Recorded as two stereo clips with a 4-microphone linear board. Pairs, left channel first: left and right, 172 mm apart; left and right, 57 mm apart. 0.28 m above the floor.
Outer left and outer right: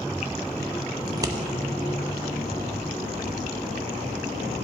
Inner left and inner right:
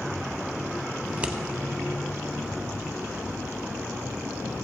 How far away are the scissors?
About 0.5 m.